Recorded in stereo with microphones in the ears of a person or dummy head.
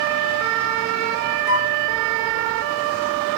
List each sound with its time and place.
1.5 s a flute: 70° left (ahead or behind)